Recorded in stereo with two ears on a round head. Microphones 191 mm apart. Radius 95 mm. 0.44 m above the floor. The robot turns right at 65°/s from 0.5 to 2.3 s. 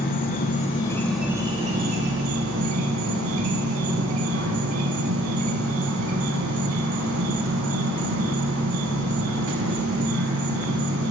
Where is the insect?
140° left, 0.7 m; by 11.1 s 105° right, 0.7 m.